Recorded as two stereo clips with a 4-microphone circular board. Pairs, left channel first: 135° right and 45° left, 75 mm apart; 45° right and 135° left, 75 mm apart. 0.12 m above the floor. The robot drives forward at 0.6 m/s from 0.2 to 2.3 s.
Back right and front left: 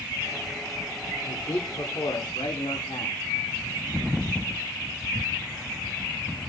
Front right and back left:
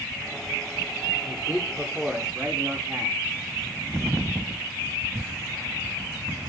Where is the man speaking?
140° right, 6.5 m; by 3.2 s 145° right, 7 m.